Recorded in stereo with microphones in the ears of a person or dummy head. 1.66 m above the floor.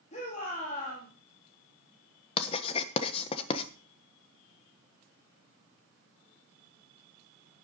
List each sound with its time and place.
0.1 s a shout: 35° left (ahead or behind), 4 m
2.4 s writing: 35° left (ahead or behind), 1.3 m